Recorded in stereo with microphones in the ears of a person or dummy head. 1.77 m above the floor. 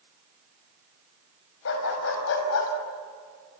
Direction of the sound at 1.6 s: 75° left (ahead or behind).